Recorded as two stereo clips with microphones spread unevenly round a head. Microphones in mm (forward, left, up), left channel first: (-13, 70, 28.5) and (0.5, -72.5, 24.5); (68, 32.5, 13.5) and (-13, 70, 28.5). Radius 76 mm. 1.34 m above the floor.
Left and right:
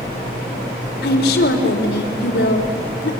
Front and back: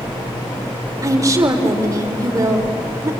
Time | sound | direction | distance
1.0 | a woman speaking | 105° left | 4 m